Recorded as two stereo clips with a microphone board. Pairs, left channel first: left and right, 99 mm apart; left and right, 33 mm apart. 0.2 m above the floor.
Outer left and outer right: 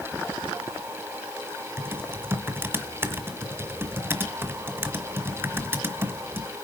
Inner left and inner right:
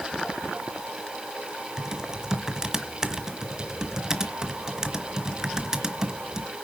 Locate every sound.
1.8 s typing on a keyboard: 20° right (ahead or behind), 1.4 m